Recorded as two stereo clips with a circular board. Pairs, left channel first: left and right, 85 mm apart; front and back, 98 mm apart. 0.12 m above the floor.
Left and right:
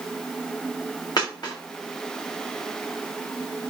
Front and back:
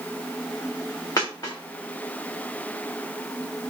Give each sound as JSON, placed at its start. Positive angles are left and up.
{"t": 1.2, "sound": "a dropped coin", "azimuth_deg": 55, "distance_m": 3.5}